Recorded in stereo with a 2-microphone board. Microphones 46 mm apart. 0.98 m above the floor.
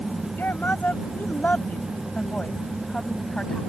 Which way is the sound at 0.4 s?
45° left (ahead or behind).